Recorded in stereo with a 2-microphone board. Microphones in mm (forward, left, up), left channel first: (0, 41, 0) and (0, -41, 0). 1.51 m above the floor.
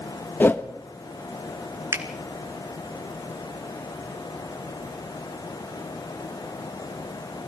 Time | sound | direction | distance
0.4 | a whoosh | 25° left (ahead or behind) | 0.9 m
1.9 | a finger snap | 35° right (ahead or behind) | 2 m